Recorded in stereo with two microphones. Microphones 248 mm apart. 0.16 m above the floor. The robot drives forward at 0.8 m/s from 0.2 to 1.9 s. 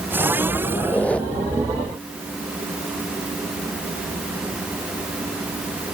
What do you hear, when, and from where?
0.8 s a squeak: 5° left (ahead or behind), 0.7 m